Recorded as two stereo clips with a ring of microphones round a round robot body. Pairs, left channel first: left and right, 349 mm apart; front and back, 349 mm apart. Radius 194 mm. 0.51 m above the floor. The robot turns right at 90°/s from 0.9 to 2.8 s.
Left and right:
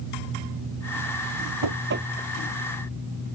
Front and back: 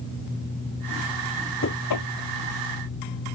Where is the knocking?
55° right; by 2.1 s 10° right.